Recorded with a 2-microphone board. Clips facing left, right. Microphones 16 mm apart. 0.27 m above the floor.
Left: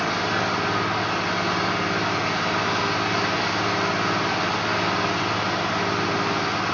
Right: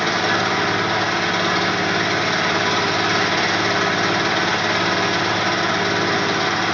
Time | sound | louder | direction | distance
0.0 | an engine running | right 5 dB | 75° right (ahead or behind) | 1.1 m